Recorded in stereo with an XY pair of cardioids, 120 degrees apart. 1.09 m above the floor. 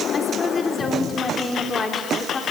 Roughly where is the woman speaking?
Ahead left.